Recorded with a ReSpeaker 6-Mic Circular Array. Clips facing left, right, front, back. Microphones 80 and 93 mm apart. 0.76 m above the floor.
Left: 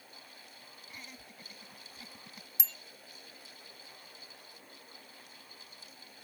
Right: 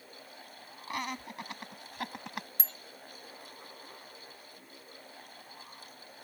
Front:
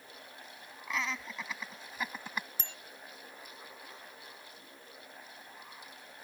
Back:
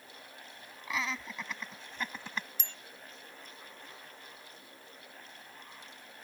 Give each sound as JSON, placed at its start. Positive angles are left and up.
{"t": 0.9, "sound": "laughter", "azimuth_deg": -90}
{"t": 2.6, "sound": "a bicycle bell", "azimuth_deg": -45}